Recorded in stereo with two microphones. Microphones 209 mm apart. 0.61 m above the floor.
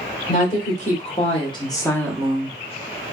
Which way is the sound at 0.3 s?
40° left (ahead or behind).